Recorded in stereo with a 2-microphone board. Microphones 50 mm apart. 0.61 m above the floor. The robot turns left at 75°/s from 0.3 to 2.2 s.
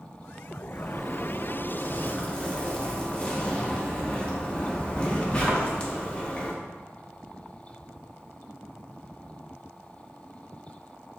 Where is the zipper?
15° right (ahead or behind), 0.5 m; by 6.5 s 20° left (ahead or behind), 0.5 m.